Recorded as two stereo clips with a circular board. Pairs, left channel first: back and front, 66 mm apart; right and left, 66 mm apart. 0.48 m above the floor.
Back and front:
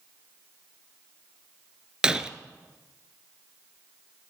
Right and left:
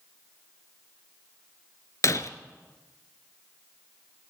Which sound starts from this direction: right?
Breaking glass, at 2.0 s.